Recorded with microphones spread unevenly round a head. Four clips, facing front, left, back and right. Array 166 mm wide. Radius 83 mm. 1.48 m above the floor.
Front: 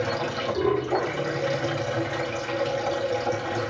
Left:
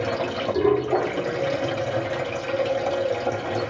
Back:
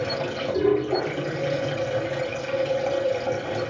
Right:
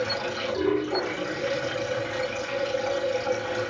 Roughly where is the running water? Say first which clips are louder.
Left 4 dB, even; left.